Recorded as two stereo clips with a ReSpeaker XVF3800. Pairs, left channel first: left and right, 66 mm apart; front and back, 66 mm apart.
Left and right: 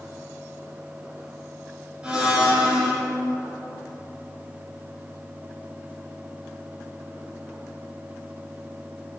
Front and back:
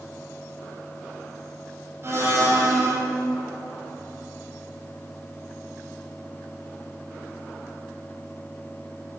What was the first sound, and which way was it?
A blender, 160° right.